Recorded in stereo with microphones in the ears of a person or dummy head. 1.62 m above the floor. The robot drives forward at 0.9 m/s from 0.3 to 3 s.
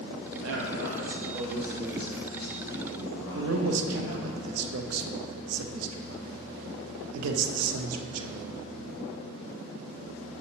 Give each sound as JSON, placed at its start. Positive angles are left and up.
{"t": 0.4, "sound": "a man speaking", "side_deg": -70, "distance_m": 0.9}
{"t": 3.4, "sound": "a man speaking", "side_deg": -90, "distance_m": 0.6}